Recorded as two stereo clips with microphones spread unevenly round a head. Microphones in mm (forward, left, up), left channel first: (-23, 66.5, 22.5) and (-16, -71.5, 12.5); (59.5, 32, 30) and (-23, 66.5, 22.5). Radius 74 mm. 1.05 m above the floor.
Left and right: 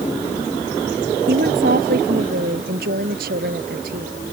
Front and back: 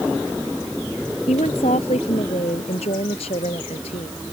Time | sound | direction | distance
1.3 | a woman speaking | 60° right | ?